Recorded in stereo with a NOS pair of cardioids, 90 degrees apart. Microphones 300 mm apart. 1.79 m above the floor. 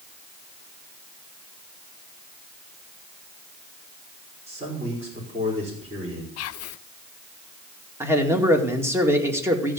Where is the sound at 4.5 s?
20° right, 5 m.